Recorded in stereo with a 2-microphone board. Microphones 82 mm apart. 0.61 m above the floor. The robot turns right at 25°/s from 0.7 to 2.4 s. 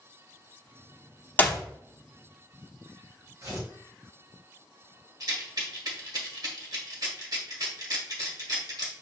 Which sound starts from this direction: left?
A clap, at 1.4 s.